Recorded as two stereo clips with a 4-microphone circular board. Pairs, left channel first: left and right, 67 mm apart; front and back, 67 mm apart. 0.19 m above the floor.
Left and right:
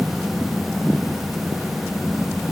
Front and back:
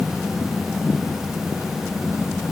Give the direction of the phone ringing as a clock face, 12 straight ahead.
I don't hear a phone ringing.